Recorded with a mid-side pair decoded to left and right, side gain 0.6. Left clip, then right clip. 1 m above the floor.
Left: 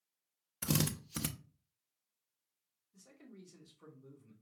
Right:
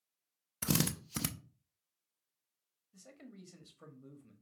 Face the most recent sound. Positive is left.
turn(degrees=-60)